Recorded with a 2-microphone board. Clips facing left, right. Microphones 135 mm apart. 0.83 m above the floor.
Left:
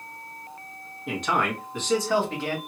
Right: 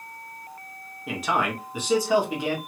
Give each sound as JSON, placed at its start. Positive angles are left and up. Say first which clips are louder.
{"t": 1.1, "sound": "a man speaking", "louder": "even", "side_deg": 0, "distance_m": 1.0}